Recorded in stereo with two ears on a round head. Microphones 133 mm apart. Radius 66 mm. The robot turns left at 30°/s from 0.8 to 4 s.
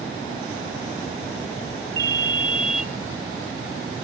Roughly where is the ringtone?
Right.